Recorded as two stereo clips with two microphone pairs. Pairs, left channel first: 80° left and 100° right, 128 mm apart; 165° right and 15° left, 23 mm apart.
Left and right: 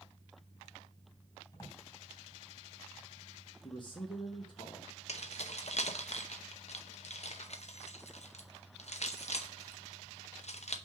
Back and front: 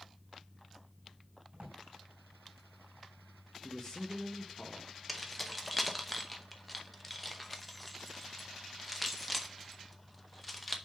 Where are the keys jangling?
110° left, 0.7 m.